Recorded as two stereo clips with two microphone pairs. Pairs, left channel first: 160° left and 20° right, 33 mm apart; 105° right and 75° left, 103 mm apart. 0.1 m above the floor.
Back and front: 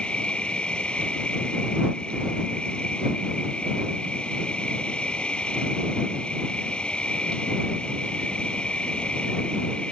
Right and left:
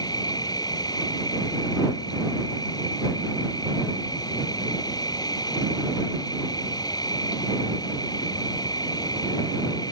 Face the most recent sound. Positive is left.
turn(degrees=-150)